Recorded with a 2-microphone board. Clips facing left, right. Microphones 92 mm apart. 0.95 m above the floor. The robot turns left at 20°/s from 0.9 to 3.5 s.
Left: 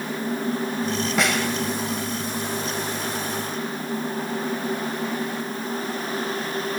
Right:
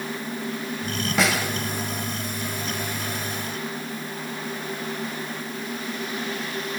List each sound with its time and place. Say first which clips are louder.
1.2 s a snare drum: right 1 dB; centre (ahead or behind), 1.5 m; by 1.5 s 5° right (ahead or behind), 1.5 m